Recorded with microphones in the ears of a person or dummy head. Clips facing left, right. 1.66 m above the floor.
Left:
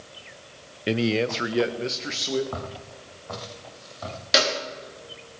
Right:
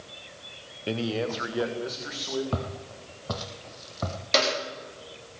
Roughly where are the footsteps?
Right.